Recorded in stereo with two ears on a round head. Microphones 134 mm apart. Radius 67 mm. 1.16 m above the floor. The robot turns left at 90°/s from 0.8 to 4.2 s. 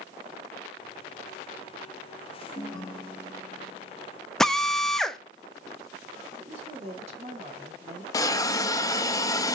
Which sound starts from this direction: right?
A woman speaking, at 6.4 s.